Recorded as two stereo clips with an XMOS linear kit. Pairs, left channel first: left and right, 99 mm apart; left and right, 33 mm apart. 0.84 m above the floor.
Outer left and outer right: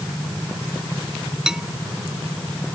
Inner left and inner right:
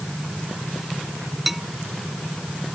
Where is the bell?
5° right (ahead or behind).